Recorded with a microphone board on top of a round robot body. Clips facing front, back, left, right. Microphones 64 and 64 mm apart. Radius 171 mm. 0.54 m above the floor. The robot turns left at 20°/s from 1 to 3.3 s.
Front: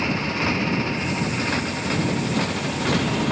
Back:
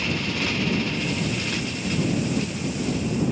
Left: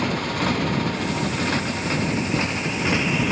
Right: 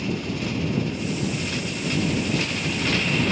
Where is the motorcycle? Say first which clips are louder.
Front 3 dB, left 4 dB; 60° left; by 3.3 s 15° left.